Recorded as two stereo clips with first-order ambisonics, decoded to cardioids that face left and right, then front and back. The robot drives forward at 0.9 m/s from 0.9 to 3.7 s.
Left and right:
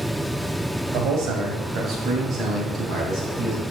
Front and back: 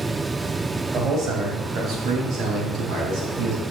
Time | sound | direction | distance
0.9 | a man speaking | 125° right | 2 m